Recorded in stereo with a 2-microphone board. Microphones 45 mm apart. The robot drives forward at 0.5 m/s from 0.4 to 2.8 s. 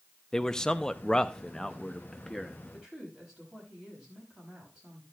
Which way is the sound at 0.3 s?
10° left (ahead or behind).